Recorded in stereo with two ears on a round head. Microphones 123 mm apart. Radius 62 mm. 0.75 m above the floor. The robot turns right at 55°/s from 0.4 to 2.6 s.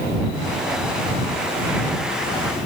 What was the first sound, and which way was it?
Only background noise.